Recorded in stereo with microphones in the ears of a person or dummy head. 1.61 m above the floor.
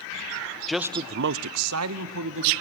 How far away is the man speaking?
About 0.8 m.